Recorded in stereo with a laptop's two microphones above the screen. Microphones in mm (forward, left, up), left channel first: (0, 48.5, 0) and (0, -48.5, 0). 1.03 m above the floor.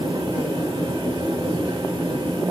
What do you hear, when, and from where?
0.0 s a fan: 65° right (ahead or behind), 3.5 m